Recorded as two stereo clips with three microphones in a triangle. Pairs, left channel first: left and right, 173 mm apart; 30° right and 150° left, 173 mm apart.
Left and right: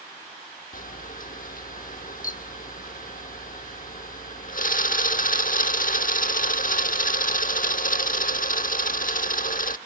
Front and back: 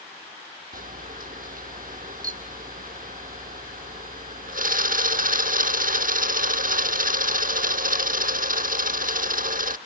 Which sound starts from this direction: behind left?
A camera shutter, at 0.7 s.